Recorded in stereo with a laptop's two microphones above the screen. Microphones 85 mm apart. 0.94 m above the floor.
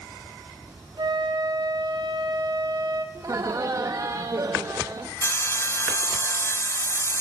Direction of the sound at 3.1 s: 40° right (ahead or behind).